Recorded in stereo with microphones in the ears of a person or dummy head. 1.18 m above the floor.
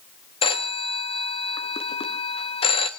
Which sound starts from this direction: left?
A phone ringing, at 0.4 s.